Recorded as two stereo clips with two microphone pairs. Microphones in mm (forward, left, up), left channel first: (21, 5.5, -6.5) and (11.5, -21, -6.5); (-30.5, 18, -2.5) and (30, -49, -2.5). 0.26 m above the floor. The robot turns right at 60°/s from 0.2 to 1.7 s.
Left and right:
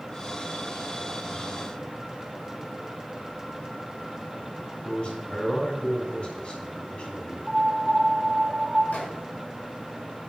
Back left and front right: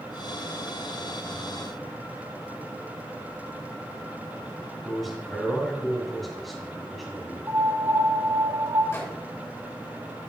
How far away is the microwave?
About 2.5 m.